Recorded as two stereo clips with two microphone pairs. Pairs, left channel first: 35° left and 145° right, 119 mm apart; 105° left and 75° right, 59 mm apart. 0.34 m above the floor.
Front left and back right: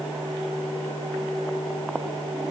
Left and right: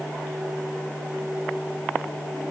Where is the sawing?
I don't hear sawing.